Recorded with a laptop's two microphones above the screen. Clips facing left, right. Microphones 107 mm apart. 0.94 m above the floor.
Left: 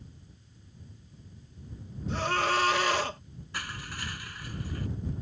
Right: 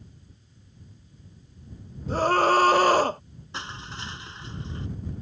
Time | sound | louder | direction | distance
2.1 | a scream | right 8 dB | 40° right (ahead or behind) | ?
3.5 | crushing | right 2 dB | 25° right (ahead or behind) | ?